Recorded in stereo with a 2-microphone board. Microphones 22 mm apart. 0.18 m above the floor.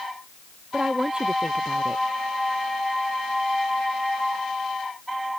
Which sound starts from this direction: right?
A woman speaking, at 0.7 s.